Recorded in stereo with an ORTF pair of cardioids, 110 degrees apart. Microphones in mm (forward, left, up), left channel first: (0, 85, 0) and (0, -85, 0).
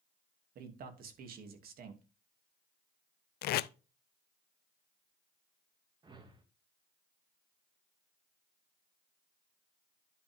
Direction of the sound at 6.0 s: 25° right.